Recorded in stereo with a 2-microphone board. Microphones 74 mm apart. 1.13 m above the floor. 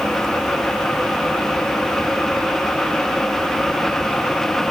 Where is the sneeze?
No sneeze in this recording.